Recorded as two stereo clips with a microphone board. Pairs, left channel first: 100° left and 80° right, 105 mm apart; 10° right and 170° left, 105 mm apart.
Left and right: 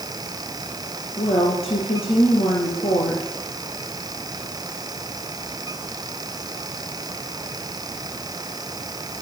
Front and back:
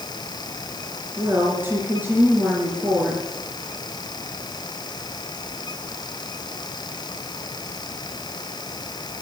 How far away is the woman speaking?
About 4 m.